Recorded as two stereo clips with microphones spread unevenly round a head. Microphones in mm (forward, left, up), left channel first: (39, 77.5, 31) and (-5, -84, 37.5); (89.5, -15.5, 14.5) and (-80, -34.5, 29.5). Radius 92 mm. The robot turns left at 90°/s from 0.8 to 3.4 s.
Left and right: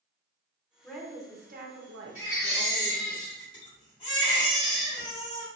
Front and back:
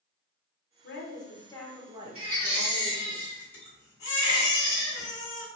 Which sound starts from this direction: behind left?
A baby crying, at 2.1 s.